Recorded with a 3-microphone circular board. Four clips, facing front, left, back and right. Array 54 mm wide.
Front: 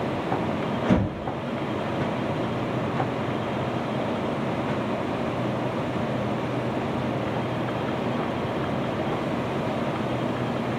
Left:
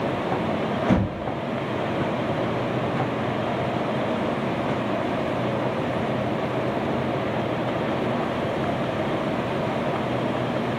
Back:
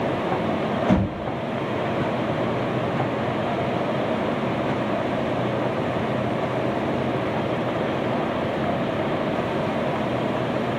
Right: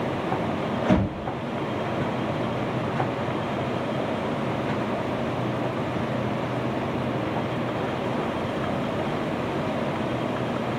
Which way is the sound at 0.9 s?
160° left.